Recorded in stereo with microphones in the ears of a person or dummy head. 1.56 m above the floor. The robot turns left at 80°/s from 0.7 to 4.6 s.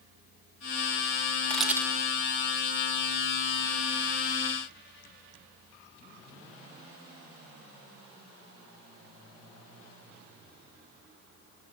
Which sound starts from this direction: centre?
A camera shutter, at 1.5 s.